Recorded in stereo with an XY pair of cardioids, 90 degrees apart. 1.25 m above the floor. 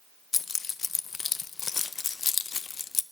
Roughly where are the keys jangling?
Ahead left.